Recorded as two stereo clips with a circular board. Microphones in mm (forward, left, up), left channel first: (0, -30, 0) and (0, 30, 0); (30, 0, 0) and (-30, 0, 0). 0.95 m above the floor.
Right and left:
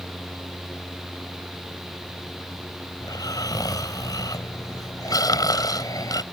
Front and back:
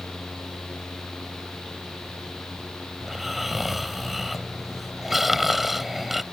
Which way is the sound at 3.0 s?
90° right.